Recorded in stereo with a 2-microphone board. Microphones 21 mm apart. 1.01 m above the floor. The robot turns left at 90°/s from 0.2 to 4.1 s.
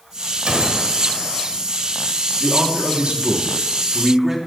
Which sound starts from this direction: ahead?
A man speaking, at 2.4 s.